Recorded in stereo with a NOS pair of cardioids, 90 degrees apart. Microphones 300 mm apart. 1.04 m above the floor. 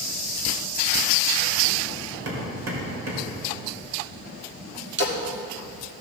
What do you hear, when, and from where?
2.2 s hammering: 50° right, 4 m
5.0 s a splash: 35° right, 2 m